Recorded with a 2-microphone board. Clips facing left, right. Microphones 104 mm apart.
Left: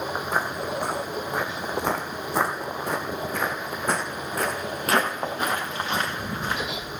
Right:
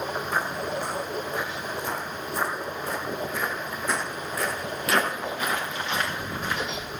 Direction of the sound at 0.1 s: 35° left (ahead or behind).